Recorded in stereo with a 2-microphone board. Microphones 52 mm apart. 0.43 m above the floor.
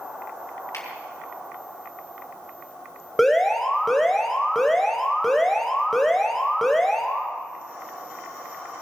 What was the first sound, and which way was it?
A finger snap, 70° left (ahead or behind).